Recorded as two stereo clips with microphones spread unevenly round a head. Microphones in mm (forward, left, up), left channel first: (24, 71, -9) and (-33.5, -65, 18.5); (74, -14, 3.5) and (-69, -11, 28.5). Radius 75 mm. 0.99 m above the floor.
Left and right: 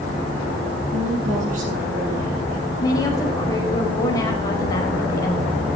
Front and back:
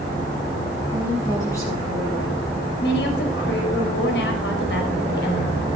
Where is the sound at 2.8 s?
Straight ahead, 4.5 m.